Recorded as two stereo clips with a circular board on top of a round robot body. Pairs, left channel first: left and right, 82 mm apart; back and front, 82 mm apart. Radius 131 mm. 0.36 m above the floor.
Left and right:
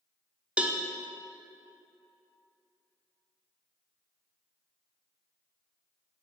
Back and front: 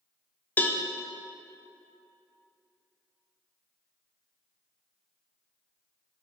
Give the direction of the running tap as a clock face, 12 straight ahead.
I don't hear a running tap.